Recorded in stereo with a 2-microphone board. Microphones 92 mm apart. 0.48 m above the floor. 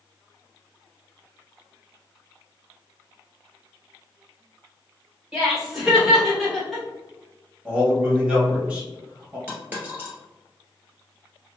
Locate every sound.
5.3 s laughter: 5° right (ahead or behind), 1.7 m; by 6.8 s 5° left (ahead or behind), 1.2 m
7.7 s a man speaking: 15° right (ahead or behind), 1.3 m
9.5 s a dropped coin: 20° right (ahead or behind), 1.2 m